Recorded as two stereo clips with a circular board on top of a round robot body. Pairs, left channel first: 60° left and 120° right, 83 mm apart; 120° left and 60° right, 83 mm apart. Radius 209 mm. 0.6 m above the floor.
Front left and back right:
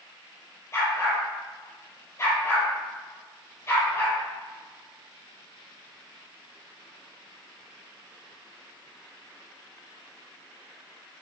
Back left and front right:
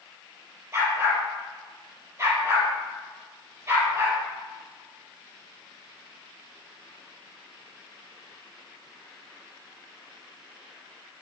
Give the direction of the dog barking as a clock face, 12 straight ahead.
12 o'clock.